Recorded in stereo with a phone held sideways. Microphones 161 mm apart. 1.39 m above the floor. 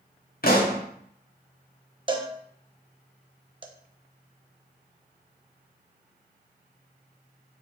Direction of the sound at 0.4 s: 60° left (ahead or behind).